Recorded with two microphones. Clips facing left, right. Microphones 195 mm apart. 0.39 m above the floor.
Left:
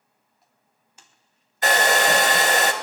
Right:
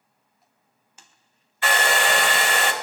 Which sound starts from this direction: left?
A hair dryer, at 1.6 s.